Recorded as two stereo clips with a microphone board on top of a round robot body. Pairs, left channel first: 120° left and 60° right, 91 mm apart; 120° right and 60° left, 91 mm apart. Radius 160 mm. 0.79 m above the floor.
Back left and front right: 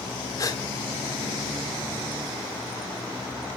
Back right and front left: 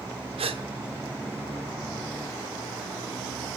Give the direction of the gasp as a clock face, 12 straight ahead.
10 o'clock.